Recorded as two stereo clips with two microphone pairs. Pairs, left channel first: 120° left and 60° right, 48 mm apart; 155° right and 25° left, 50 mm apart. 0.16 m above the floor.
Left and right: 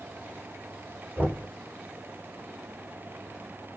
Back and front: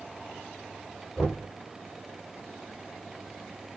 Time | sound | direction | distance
1.2 | knocking | 80° right | 1.7 m